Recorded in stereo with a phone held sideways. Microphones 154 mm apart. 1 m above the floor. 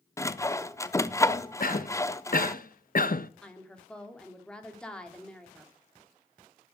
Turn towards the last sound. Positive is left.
turn(degrees=5)  # may be behind; listen again after turning